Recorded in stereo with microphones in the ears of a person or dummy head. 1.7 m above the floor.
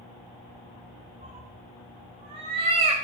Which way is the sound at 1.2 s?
30° right (ahead or behind).